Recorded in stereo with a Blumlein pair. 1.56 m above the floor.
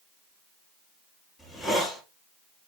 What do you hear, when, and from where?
1.4 s a hiss: 10° left, 6.5 m